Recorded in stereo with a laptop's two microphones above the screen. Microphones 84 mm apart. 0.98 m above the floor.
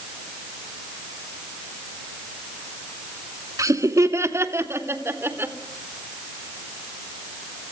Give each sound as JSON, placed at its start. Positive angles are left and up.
{"t": 3.6, "sound": "laughter", "side_deg": -40, "distance_m": 2.5}